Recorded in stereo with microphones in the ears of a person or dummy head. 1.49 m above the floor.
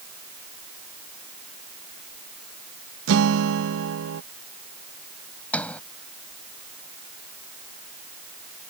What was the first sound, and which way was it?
A guitar, 75° right (ahead or behind).